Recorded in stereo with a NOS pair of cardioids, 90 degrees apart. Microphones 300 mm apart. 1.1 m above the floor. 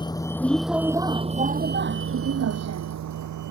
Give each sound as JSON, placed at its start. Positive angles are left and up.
{"t": 0.0, "sound": "a vehicle", "azimuth_deg": 15}